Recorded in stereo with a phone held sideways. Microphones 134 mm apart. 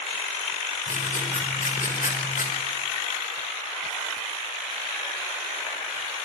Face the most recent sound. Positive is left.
turn(degrees=80)